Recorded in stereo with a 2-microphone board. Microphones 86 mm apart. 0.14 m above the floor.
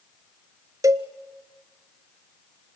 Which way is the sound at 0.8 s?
40° right (ahead or behind).